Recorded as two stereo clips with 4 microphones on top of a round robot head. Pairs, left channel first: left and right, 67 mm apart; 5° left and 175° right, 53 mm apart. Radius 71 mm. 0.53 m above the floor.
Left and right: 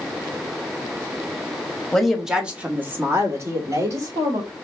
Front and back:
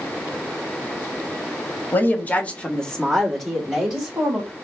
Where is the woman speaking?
10° left, 1.5 m; by 4.5 s 100° right, 2.5 m.